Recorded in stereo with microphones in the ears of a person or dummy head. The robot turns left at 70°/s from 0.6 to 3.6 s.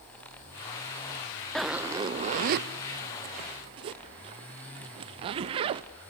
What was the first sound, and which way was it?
A zipper, centre (ahead or behind).